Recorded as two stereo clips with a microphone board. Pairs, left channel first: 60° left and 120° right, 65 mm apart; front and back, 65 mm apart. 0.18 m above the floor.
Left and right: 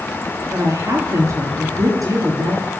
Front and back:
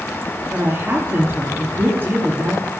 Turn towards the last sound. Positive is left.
turn(degrees=-130)